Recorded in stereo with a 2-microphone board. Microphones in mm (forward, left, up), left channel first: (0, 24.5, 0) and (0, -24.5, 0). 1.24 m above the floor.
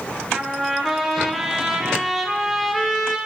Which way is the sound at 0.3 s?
5° right (ahead or behind).